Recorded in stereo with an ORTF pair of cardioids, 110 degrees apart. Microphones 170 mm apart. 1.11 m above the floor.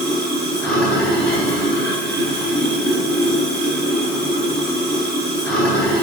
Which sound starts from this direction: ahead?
Running water, at 0.0 s.